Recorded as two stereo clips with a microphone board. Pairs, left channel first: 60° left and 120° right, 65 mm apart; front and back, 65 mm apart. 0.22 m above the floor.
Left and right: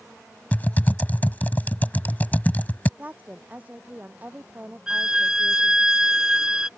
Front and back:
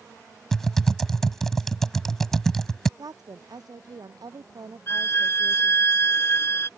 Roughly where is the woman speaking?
Behind.